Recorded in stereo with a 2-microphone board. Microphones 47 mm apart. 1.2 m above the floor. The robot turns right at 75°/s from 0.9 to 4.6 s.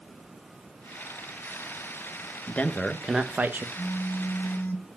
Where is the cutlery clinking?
No cutlery clinking in this recording.